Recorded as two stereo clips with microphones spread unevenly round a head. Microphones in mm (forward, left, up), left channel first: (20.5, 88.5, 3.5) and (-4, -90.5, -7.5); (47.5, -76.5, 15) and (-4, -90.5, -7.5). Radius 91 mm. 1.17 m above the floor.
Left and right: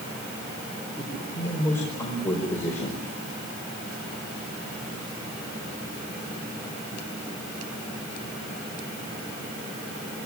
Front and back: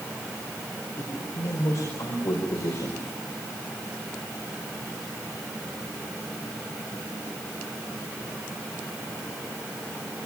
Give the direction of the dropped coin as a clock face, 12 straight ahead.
No dropped coin in this recording.